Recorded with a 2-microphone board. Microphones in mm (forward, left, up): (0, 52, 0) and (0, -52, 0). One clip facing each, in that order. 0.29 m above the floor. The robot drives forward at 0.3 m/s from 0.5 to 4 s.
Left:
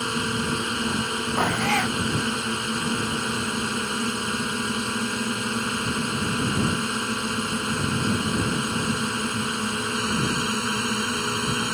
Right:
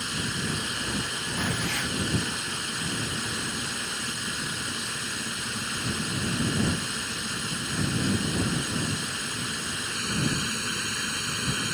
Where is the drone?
55° left (ahead or behind).